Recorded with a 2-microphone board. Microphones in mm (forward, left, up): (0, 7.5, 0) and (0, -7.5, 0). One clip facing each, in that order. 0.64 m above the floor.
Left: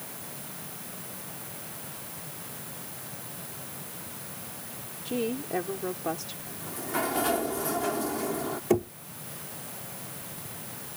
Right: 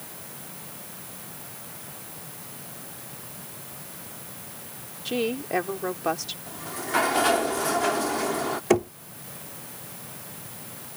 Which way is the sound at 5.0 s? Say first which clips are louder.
Right 4 dB; 35° right (ahead or behind).